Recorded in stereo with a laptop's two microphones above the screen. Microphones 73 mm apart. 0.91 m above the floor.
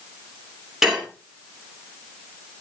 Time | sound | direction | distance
0.8 | dishes clattering | 5° right (ahead or behind) | 7 m